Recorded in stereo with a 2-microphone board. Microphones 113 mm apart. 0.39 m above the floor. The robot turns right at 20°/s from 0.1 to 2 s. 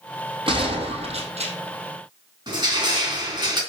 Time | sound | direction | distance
0.5 | a gunshot | 50° right (ahead or behind) | 3 m
2.5 | crushing | 40° right (ahead or behind) | 3.5 m